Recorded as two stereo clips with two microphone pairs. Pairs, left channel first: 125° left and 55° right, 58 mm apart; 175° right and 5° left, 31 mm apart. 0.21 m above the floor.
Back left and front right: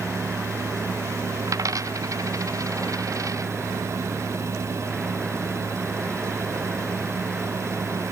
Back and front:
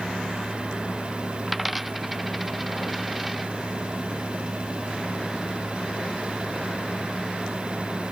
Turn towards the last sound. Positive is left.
turn(degrees=-75)